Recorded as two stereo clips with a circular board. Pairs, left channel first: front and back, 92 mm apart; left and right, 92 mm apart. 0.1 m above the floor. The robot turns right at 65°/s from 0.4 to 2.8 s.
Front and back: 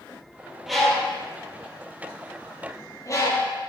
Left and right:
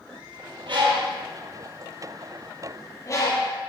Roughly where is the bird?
Right.